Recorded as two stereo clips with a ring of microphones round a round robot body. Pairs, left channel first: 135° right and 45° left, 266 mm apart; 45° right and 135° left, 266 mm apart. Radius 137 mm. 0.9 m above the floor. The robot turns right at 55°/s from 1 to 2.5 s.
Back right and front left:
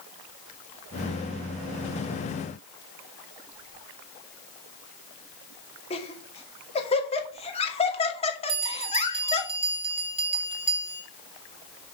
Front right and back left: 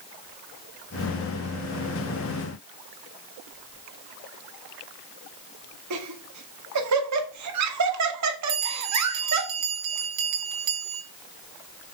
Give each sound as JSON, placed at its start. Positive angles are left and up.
{"t": 5.9, "sound": "laughter", "azimuth_deg": 155, "distance_m": 2.0}
{"t": 8.5, "sound": "a bell", "azimuth_deg": 115, "distance_m": 2.5}